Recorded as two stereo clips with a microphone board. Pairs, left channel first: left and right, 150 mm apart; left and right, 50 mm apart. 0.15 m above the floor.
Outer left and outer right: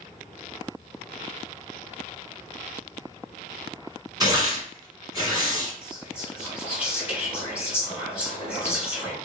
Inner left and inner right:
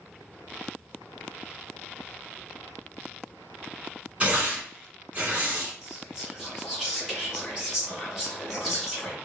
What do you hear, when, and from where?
4.2 s tearing paper: 25° right (ahead or behind), 1.6 m
5.8 s whispering: 5° right (ahead or behind), 2 m